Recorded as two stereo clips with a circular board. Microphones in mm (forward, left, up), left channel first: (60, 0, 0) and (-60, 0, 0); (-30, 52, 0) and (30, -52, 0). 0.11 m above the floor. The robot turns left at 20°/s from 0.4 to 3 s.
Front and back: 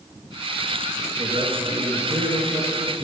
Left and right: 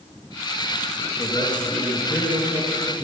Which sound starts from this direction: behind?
A man speaking, at 1.2 s.